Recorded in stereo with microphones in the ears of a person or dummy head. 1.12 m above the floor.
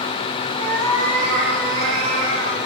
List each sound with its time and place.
0.6 s a cat meowing: 80° right, 2.5 m; by 2.6 s 70° right (ahead or behind), 5 m